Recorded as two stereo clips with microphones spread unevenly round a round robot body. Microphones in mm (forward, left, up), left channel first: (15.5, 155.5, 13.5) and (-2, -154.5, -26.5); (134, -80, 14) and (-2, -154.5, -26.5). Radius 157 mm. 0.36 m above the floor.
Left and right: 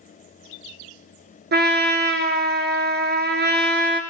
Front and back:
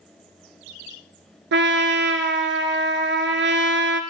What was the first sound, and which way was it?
A trumpet, 155° right.